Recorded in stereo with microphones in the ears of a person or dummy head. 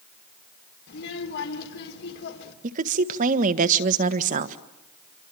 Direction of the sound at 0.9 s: 70° left (ahead or behind).